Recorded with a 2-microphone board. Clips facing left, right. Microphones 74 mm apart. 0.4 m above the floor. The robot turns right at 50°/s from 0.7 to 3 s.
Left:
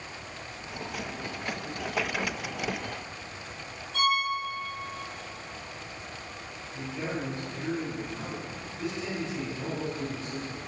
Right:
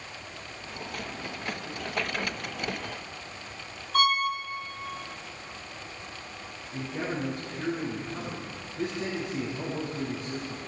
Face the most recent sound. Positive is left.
turn(degrees=-45)  # may be behind; listen again after turning